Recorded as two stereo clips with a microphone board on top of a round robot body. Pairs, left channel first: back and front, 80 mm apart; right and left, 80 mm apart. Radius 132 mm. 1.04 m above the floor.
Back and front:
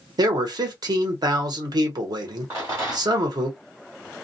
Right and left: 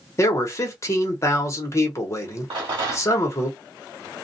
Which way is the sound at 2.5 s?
60° left.